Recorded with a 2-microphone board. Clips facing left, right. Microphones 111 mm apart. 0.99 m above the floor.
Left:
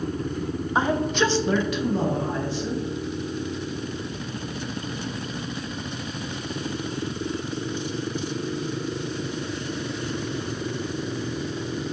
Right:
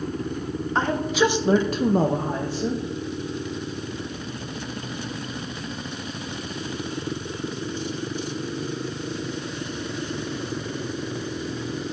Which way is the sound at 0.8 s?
10° left (ahead or behind).